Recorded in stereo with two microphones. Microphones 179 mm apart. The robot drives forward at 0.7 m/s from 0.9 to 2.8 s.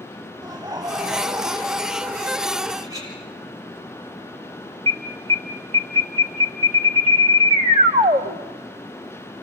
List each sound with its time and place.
0.4 s laughter: 20° right (ahead or behind), 2.5 m; by 2.8 s 35° right (ahead or behind), 1.5 m
2.8 s a clink: 20° right (ahead or behind), 6 m
4.9 s an alarm: 35° right (ahead or behind), 1.2 m